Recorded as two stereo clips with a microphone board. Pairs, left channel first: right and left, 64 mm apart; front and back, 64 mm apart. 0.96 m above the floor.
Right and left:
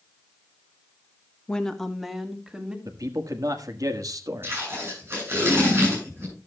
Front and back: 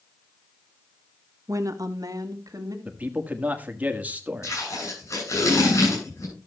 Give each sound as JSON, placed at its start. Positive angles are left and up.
{"t": 1.5, "sound": "a woman speaking", "azimuth_deg": -160, "distance_m": 1.3}
{"t": 2.9, "sound": "a man speaking", "azimuth_deg": 115, "distance_m": 1.5}
{"t": 4.4, "sound": "tape being pulled", "azimuth_deg": 35, "distance_m": 9.5}